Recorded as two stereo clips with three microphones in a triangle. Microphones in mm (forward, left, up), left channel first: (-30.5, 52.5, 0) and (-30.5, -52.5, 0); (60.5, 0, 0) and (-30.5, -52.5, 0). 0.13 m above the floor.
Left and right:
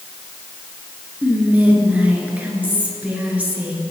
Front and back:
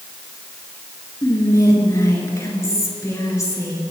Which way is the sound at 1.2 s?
20° right.